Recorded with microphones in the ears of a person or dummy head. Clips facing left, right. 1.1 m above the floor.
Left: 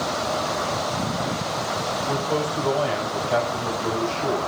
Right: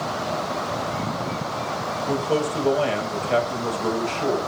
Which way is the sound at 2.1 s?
35° right (ahead or behind).